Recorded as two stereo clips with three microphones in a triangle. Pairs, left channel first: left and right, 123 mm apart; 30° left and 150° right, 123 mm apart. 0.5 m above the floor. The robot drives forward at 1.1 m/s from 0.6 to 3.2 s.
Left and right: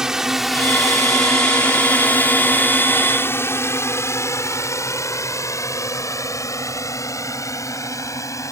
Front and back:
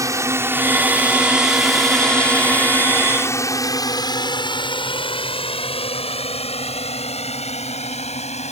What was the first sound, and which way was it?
A drone, 170° right.